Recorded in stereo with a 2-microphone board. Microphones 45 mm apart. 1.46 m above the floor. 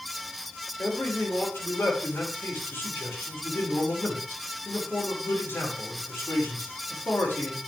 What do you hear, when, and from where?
0.8 s a man speaking: 70° left (ahead or behind), 5.5 m